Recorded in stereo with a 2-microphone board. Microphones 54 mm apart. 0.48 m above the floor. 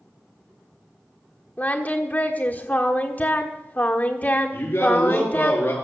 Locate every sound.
1.6 s singing: 30° left (ahead or behind), 1.2 m
4.5 s a man speaking: 40° left (ahead or behind), 7 m